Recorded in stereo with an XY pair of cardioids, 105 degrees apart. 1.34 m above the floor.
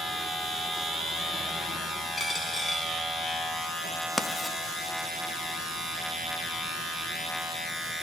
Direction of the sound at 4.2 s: 20° left.